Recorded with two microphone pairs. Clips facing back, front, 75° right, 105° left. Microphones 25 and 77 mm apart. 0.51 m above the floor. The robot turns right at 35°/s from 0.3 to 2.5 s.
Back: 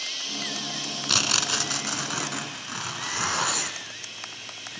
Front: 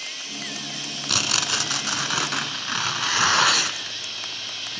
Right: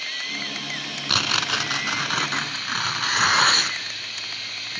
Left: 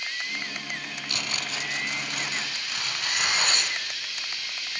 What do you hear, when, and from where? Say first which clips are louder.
0.0 s running water: back 1 dB, right 1 dB; 110° right, 3.5 m; by 4.8 s 35° right, 3.5 m
1.1 s tearing paper: front 1 dB, right 10 dB; 95° right, 1.5 m; by 4.8 s 45° right, 1.5 m